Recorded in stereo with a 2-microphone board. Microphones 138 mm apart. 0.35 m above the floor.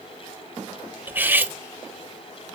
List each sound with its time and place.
1.1 s cutlery clinking: 15° right (ahead or behind), 0.6 m